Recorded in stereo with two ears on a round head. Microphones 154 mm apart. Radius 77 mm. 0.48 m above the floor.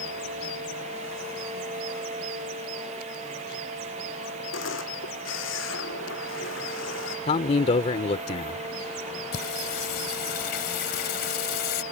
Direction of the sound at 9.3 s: 65° left (ahead or behind).